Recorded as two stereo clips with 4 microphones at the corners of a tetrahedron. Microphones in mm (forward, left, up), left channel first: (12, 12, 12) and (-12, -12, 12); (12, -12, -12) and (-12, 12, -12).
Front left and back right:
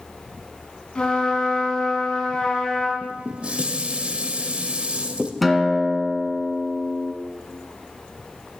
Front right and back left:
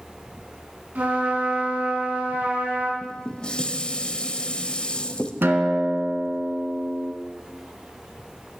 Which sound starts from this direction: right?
Dishes clattering, at 3.0 s.